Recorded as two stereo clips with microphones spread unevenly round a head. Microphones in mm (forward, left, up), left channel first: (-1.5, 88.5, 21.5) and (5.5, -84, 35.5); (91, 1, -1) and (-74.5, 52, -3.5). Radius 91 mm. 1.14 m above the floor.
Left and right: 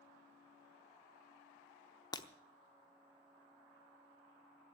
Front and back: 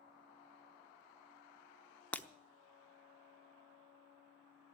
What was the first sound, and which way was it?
Breaking glass, 45° left.